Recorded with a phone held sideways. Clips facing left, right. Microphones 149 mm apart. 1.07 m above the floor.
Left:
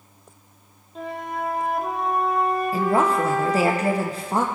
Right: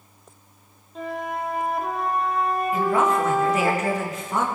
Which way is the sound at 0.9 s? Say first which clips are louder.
Right 1 dB; centre (ahead or behind).